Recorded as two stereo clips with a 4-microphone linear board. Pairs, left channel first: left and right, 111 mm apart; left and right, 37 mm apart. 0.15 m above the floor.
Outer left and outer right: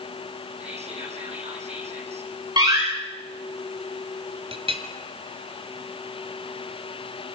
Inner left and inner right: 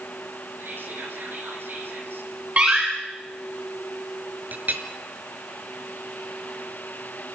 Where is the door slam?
40° right (ahead or behind), 9 m.